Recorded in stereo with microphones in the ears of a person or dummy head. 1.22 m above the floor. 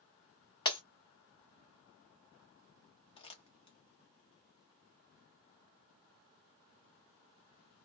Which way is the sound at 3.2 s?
25° left (ahead or behind).